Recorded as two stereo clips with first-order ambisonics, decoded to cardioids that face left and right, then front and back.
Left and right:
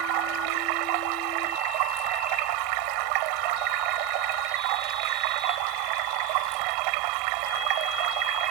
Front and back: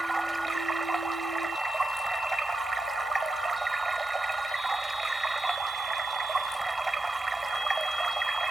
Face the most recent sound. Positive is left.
turn(degrees=-100)